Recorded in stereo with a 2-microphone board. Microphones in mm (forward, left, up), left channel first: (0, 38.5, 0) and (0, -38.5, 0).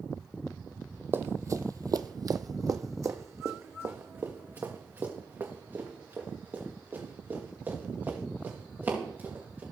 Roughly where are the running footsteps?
Right.